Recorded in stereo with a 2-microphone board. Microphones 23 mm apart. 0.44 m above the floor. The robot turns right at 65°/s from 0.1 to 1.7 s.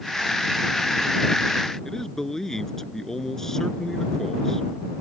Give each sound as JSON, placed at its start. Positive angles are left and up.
{"t": 1.9, "sound": "a man speaking", "side_deg": 20}